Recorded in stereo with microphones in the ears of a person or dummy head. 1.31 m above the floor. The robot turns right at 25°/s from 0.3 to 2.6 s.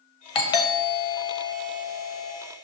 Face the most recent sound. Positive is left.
turn(degrees=-155)